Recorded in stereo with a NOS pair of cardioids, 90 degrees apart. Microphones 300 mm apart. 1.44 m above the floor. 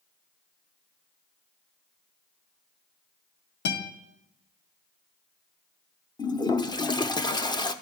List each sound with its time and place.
3.6 s a guitar: 35° left, 2 m
6.2 s a toilet flushing: 15° left, 0.7 m